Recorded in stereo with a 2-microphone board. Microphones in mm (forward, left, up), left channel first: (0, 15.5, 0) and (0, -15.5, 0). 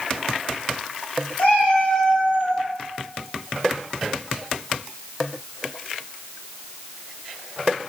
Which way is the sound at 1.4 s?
55° left (ahead or behind).